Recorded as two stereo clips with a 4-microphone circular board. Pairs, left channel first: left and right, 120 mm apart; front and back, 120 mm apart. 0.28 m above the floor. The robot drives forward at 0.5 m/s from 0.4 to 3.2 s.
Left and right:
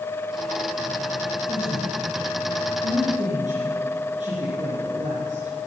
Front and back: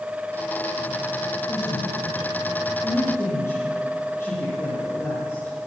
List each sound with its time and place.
1.5 s a woman speaking: 60° right, 5 m; by 5.5 s 70° right, 4.5 m